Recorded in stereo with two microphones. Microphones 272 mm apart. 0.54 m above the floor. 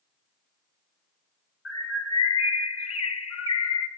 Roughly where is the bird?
Left.